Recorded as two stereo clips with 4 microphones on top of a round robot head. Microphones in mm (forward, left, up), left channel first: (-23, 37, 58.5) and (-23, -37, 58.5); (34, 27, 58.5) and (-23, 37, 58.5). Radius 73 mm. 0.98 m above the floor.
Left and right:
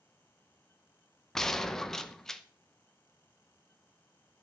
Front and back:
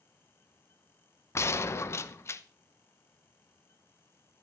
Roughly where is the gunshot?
Ahead.